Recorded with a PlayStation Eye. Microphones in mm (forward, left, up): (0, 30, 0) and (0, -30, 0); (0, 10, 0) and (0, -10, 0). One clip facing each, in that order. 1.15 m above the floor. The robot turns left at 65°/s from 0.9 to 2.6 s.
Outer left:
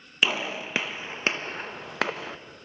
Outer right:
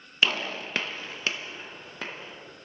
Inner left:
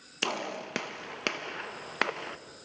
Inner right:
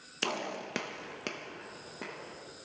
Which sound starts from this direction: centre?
A gunshot, at 0.2 s.